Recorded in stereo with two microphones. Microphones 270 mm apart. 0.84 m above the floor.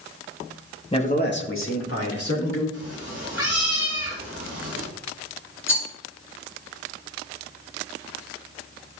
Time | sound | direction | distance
0.9 | a man speaking | 20° left (ahead or behind) | 1.0 m
2.7 | a cat meowing | 60° left (ahead or behind) | 3.5 m
5.7 | a rattle | 45° left (ahead or behind) | 2.5 m